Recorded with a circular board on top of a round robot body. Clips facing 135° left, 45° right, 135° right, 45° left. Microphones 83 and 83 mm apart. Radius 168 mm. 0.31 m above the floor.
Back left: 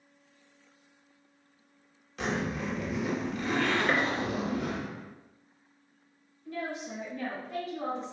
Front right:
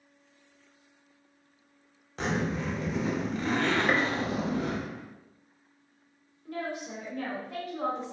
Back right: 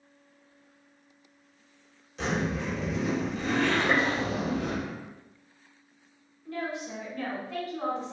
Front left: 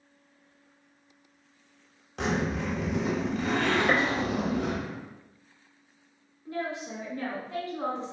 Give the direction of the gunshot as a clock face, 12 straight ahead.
11 o'clock.